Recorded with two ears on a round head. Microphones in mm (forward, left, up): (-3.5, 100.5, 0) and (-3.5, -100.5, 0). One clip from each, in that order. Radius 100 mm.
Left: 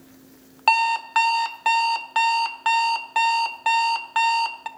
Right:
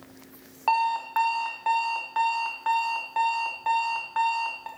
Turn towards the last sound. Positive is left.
turn(degrees=75)  # may be behind; listen again after turning